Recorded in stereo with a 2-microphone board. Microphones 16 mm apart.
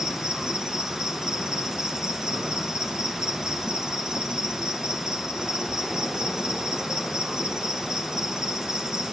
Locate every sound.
0.0 s an insect: 45° right (ahead or behind), 1.0 m